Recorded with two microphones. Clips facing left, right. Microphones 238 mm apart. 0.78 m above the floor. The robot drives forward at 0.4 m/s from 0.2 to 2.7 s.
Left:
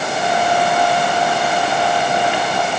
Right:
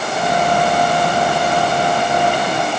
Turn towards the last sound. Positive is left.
No sound to turn to.